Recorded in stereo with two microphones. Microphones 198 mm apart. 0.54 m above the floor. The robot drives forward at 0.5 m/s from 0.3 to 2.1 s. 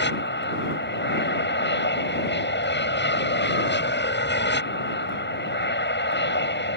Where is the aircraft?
65° left (ahead or behind).